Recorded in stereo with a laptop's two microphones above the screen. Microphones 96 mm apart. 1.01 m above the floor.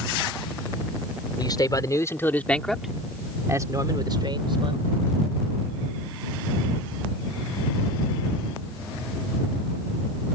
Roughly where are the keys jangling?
No keys jangling in this recording.